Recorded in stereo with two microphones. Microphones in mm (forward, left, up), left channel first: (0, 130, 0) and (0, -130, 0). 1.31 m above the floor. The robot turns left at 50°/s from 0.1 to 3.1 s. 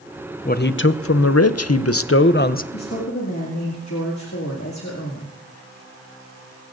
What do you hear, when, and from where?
0.5 s a man speaking: 145° left, 0.5 m; by 2.6 s 35° left, 0.5 m
2.7 s a woman speaking: 70° left (ahead or behind), 2 m; by 5.3 s 85° left, 2 m